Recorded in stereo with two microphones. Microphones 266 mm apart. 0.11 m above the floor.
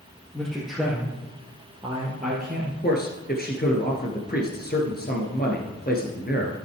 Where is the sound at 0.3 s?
5° left (ahead or behind), 3 m; by 2.7 s 40° right (ahead or behind), 2 m.